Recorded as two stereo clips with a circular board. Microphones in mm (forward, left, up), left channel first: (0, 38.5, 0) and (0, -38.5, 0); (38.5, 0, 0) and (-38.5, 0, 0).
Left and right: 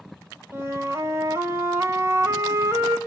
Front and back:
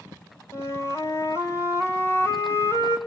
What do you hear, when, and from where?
0.5 s a flute: 40° right, 2 m